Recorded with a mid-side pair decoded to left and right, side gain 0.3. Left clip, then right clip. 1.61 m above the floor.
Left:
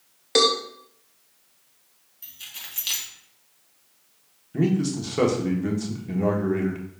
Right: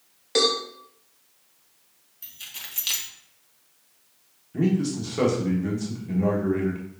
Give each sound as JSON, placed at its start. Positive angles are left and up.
{"t": 0.3, "sound": "a cowbell", "azimuth_deg": 45, "distance_m": 1.2}
{"t": 2.2, "sound": "keys jangling", "azimuth_deg": -20, "distance_m": 1.6}
{"t": 4.5, "sound": "a man speaking", "azimuth_deg": 35, "distance_m": 1.5}